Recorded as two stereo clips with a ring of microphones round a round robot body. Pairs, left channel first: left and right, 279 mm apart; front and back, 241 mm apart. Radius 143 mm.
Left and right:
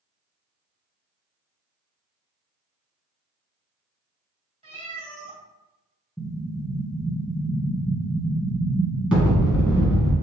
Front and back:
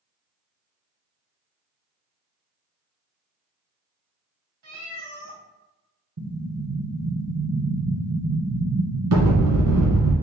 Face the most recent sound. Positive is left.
turn(degrees=-175)